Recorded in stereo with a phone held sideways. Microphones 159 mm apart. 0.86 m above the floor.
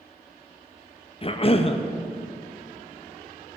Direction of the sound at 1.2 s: 35° left (ahead or behind).